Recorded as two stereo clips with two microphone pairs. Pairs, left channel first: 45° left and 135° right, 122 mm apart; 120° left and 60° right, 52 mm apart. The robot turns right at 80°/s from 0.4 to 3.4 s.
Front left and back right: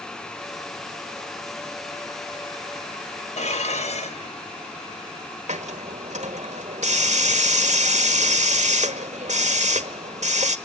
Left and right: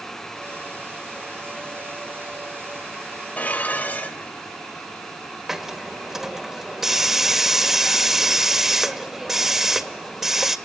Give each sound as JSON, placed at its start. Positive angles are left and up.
{"t": 3.4, "sound": "dishes clattering", "azimuth_deg": 60, "distance_m": 2.5}
{"t": 5.5, "sound": "a hiss", "azimuth_deg": -145, "distance_m": 1.6}